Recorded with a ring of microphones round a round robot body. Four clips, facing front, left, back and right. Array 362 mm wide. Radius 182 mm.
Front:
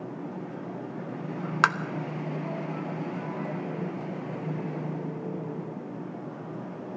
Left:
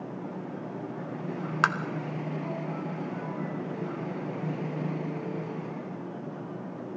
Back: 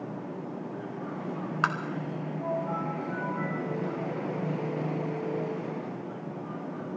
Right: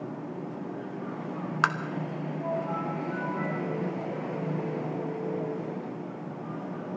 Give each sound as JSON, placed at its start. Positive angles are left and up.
{"t": 1.6, "sound": "tapping", "azimuth_deg": 0, "distance_m": 1.1}